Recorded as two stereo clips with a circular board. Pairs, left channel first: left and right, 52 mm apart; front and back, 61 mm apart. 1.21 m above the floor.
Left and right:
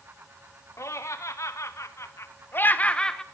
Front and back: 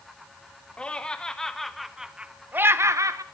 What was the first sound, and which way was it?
Laughter, 75° left.